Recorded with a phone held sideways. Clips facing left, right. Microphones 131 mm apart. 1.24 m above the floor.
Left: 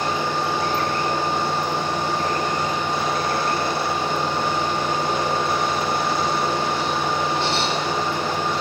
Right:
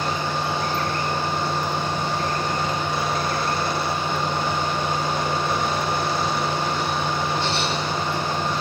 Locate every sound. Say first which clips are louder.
0.0 s a fan: left 2 dB; 80° left, 3 m